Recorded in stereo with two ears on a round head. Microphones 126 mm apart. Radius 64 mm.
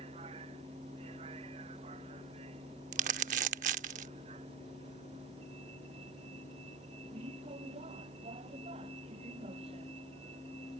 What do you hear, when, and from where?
0.0 s a vehicle: 45° right (ahead or behind)
2.9 s crumpling: 55° right (ahead or behind)